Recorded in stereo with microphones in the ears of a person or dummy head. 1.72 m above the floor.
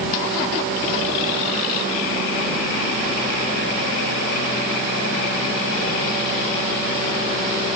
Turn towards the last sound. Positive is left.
No sound to turn to.